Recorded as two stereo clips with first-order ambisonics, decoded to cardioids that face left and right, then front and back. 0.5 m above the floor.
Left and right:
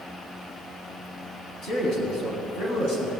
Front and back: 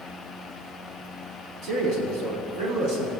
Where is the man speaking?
135° left, 4 m.